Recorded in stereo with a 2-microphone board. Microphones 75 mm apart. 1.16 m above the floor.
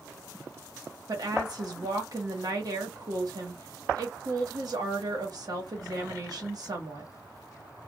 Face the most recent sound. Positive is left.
turn(degrees=-55)  # may be behind; listen again after turning